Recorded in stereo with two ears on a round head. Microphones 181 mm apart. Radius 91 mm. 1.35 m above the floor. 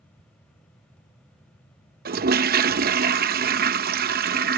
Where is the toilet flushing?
45° right (ahead or behind).